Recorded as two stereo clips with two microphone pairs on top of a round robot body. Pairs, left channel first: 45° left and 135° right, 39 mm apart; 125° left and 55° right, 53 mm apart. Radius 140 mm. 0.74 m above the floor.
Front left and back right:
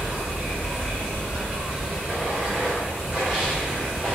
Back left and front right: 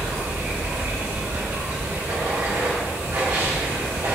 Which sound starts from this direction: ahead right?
Running water, at 0.0 s.